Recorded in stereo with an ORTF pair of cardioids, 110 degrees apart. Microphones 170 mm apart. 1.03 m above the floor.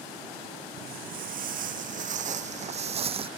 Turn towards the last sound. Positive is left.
turn(degrees=-35)